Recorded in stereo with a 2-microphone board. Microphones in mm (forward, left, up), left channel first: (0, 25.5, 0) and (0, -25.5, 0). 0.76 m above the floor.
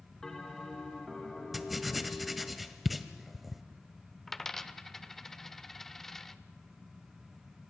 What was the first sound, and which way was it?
A bell, 10° left (ahead or behind).